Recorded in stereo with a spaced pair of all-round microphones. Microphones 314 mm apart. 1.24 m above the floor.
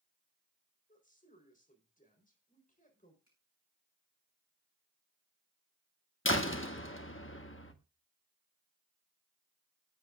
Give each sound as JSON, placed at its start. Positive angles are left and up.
{"t": 0.9, "sound": "a woman speaking", "side_deg": 25, "distance_m": 4.0}
{"t": 3.3, "sound": "a finger snap", "side_deg": 55, "distance_m": 8.0}
{"t": 6.2, "sound": "a door slam", "side_deg": 40, "distance_m": 1.2}